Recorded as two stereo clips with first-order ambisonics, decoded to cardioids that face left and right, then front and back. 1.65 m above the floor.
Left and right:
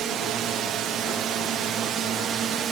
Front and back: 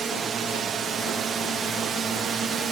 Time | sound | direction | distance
0.0 | a drone | 120° right | ?